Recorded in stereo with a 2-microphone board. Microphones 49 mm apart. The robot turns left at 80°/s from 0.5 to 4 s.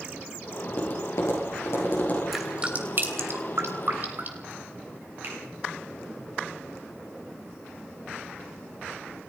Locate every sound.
0.7 s tapping: 30° left (ahead or behind), 9.5 m; by 2.2 s 25° left (ahead or behind), 9.5 m
2.3 s dripping: centre (ahead or behind), 3 m; by 4.5 s 40° right (ahead or behind), 3 m
5.2 s a finger snap: 45° right (ahead or behind), 10 m